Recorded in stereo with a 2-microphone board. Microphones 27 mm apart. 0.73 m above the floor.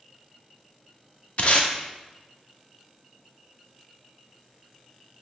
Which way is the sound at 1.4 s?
50° left (ahead or behind).